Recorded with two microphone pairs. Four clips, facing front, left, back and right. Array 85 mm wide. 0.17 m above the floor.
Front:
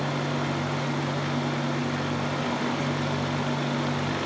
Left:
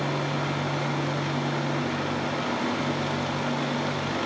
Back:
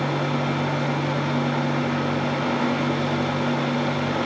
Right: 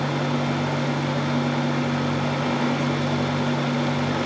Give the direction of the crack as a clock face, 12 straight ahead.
No crack in this recording.